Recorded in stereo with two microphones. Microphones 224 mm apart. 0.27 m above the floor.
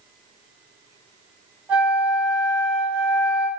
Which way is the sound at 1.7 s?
5° right (ahead or behind).